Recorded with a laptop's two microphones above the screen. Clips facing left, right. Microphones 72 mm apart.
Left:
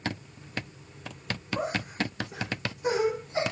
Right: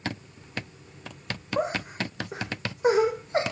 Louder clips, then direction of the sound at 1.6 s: Right 4 dB; 30° right (ahead or behind).